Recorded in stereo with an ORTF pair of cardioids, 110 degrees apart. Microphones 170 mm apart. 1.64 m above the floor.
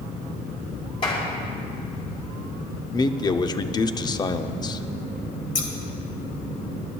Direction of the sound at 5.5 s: 50° left.